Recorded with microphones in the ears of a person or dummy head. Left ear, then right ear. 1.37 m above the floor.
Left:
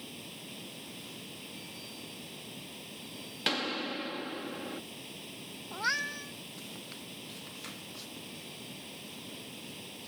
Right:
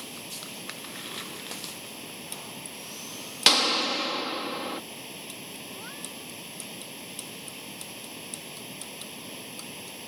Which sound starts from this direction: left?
A cat meowing, at 5.7 s.